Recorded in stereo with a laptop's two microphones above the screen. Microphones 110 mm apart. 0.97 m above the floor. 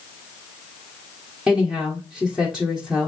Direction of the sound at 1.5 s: Centre (ahead or behind).